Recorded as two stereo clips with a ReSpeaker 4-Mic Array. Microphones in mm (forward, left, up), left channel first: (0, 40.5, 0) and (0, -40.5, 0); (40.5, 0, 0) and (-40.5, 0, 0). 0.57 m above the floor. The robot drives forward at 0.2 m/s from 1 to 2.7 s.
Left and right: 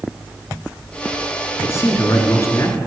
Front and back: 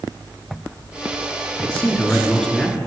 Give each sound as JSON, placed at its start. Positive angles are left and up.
{"t": 1.6, "sound": "a man speaking", "azimuth_deg": 70, "distance_m": 1.2}